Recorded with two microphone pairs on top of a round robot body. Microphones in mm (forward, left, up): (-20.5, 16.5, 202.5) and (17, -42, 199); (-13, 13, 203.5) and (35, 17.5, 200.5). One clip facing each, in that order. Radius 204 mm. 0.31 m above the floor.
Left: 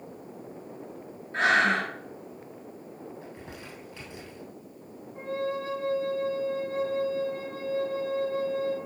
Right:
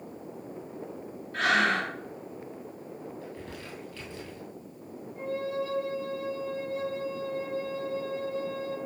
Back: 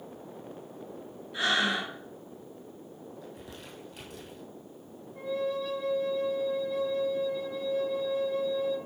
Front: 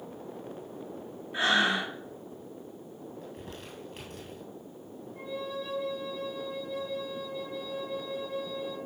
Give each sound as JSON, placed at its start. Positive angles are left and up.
{"t": 1.3, "sound": "breathing", "azimuth_deg": 60, "distance_m": 2.5}
{"t": 3.2, "sound": "crumpling", "azimuth_deg": 50, "distance_m": 2.5}
{"t": 5.2, "sound": "a flute", "azimuth_deg": 85, "distance_m": 5.5}